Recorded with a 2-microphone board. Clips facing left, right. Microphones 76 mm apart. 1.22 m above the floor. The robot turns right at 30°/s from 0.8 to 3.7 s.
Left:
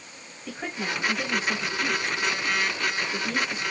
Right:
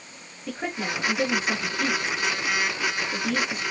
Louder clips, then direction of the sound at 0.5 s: Right 2 dB; 20° right (ahead or behind).